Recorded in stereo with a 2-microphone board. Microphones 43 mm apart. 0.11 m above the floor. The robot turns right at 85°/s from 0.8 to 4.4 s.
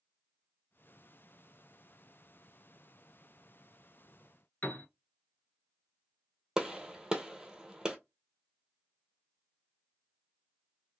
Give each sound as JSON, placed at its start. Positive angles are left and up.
{"t": 4.6, "sound": "a piano", "side_deg": 40, "distance_m": 0.8}
{"t": 6.6, "sound": "a gunshot", "side_deg": -15, "distance_m": 0.9}